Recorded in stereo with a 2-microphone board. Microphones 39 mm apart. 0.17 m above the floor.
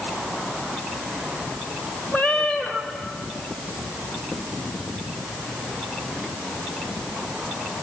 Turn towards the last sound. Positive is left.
turn(degrees=45)  # may be behind; listen again after turning